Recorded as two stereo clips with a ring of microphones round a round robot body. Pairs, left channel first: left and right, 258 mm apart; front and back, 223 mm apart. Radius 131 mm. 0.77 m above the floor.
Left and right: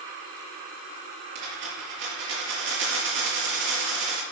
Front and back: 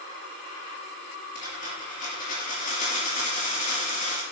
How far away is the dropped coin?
About 5 m.